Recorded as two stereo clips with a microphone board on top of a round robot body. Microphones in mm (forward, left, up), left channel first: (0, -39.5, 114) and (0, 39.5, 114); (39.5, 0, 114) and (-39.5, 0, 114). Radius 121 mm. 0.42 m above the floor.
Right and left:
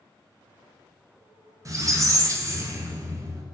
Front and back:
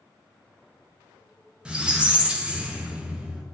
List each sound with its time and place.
1.6 s a squeak: 110° left, 0.6 m